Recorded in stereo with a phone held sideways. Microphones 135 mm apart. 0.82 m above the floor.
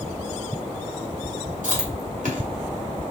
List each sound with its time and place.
1.6 s chewing: 70° right (ahead or behind), 1.6 m